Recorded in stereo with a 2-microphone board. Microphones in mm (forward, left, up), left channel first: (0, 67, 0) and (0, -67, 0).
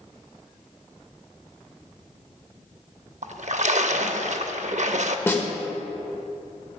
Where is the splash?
65° right (ahead or behind), 0.5 m.